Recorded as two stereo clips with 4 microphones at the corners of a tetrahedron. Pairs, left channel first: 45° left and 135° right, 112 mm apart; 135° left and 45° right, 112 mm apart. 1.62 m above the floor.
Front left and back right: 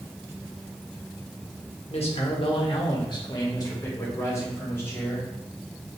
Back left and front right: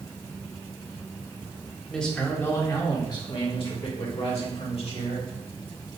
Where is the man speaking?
50° left, 1.0 m; by 5.3 s 115° left, 2 m.